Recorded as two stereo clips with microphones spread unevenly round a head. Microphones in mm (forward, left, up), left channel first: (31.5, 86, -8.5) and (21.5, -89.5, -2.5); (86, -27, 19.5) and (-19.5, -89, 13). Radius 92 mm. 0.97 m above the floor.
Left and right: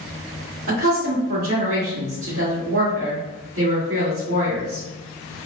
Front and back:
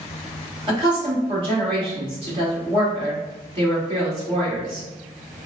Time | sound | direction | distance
0.7 | a woman speaking | 105° right | 1.6 m